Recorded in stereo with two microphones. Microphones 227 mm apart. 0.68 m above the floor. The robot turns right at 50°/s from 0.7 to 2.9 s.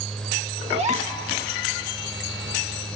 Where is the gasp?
25° right (ahead or behind), 1.4 m; by 1.2 s 40° right (ahead or behind), 1.4 m.